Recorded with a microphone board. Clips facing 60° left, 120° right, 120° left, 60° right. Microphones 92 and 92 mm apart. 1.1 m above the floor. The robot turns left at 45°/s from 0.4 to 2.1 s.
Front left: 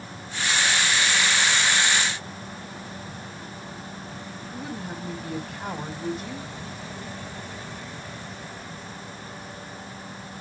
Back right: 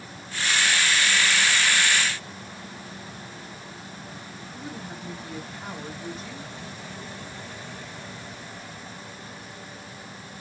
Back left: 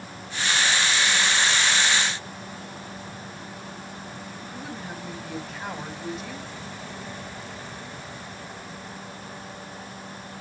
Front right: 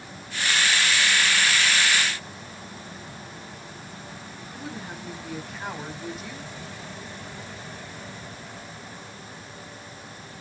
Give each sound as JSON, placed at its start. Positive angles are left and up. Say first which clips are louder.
{"t": 4.5, "sound": "a woman speaking", "louder": "front left 4 dB, front right 1 dB", "azimuth_deg": 30, "distance_m": 3.5}